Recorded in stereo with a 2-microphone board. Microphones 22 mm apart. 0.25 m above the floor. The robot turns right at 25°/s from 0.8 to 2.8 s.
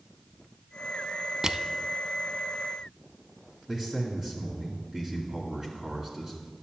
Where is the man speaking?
10° right (ahead or behind), 2 m.